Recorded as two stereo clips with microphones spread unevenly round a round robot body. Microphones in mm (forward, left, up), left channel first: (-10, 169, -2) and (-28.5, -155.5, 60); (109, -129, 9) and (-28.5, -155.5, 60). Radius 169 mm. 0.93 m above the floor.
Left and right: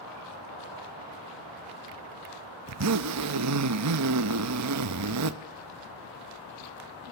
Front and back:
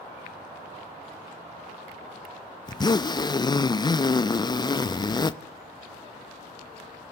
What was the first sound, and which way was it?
A zipper, 50° right.